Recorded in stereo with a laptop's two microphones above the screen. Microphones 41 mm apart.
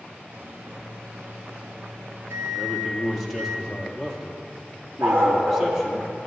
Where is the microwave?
75° right (ahead or behind), 0.8 m.